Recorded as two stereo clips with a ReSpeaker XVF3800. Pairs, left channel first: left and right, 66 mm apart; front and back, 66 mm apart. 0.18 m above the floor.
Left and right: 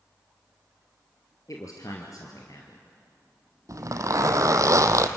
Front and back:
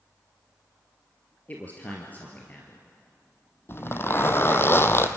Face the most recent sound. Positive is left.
turn(degrees=-50)